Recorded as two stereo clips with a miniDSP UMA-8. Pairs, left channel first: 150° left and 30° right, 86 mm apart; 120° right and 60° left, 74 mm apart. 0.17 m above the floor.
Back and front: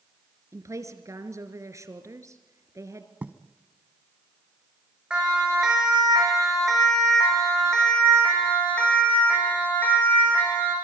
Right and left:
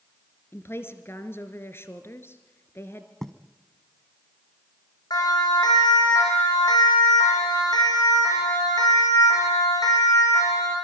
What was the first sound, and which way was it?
A woman speaking, 75° right.